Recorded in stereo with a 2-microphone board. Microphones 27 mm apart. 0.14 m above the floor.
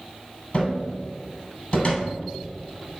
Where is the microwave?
No microwave in this recording.